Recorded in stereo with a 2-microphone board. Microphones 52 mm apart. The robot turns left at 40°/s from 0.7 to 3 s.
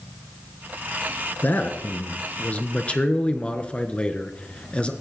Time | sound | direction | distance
1.4 | a man speaking | 105° left | 1.3 m